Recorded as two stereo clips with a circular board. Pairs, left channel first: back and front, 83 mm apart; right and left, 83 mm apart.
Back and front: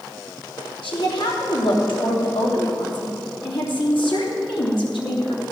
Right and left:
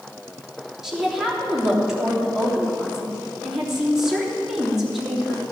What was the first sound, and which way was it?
A woman speaking, 175° left.